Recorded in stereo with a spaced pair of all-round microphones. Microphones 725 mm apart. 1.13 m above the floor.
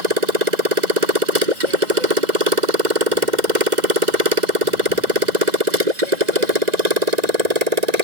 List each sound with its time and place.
0.0 s a motorcycle: 70° right (ahead or behind); by 8.0 s 60° right (ahead or behind)